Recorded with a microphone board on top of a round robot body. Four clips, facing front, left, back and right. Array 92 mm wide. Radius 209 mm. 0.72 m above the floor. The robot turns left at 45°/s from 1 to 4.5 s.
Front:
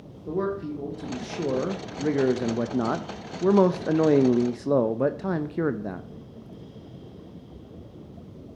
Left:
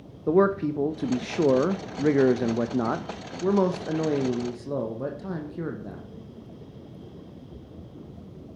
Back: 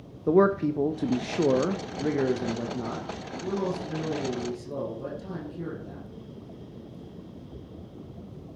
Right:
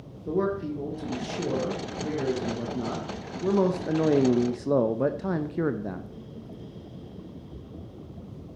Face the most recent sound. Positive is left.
turn(degrees=-25)